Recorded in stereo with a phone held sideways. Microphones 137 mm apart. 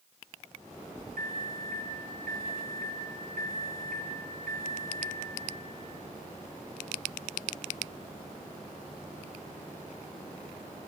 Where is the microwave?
70° right (ahead or behind), 0.7 m.